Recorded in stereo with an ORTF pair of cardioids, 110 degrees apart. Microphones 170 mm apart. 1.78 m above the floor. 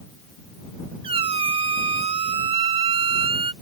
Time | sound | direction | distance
1.0 | a squeak | 35° right | ?